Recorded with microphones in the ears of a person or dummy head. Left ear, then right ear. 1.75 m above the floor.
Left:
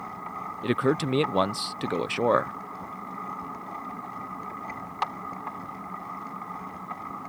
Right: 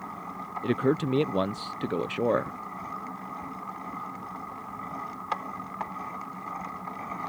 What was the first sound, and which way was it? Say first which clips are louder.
A man speaking: left 1 dB; 10° left (ahead or behind).